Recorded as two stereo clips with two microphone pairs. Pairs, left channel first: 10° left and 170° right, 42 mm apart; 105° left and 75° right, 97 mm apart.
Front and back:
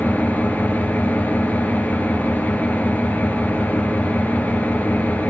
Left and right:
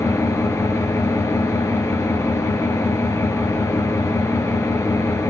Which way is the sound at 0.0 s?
45° left.